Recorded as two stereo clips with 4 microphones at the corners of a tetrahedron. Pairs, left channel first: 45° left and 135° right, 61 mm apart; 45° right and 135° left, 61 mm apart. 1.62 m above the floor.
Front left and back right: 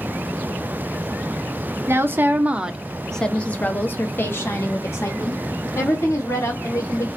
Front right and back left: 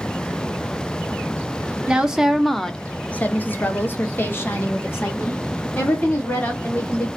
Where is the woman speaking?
155° right, 0.7 m; by 7.1 s 5° left, 2.5 m.